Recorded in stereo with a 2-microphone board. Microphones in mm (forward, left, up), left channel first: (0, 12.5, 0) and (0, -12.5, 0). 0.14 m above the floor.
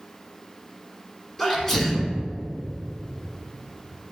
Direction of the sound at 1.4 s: 15° left (ahead or behind).